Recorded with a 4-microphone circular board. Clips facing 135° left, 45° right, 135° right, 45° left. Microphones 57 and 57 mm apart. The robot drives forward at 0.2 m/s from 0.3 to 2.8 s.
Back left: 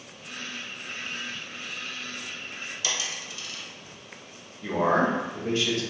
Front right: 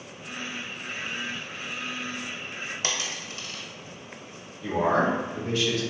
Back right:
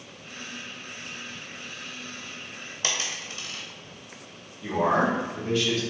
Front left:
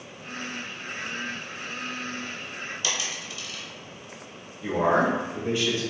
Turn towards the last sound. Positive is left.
turn(degrees=105)